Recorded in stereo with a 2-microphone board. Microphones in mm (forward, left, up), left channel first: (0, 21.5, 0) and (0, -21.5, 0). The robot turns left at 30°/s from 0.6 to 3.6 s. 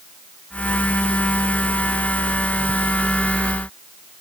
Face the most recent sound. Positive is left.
No sound to turn to.